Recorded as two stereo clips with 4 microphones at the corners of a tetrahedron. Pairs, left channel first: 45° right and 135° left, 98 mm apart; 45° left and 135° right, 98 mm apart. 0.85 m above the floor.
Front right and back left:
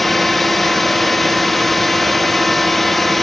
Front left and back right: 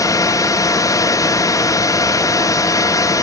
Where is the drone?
45° left.